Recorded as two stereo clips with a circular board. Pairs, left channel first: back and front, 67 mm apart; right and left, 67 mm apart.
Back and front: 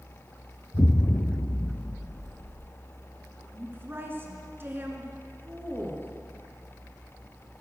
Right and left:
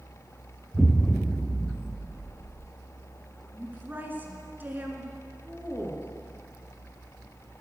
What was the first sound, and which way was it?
An explosion, 170° left.